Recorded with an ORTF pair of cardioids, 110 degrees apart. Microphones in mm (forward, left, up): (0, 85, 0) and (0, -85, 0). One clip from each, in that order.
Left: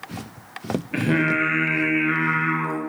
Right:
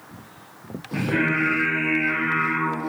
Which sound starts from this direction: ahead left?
Singing, at 0.9 s.